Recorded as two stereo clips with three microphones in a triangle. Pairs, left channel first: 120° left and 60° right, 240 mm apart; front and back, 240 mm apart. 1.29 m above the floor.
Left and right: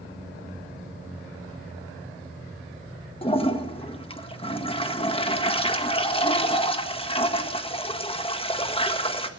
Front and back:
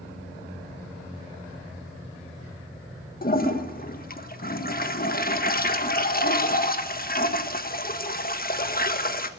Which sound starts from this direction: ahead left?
A toilet flushing, at 3.2 s.